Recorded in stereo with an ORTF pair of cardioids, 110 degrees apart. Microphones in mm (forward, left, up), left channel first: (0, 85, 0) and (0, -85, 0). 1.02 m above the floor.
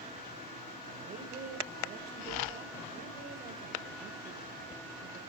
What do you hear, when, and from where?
1.0 s a woman speaking: 55° right, 5.5 m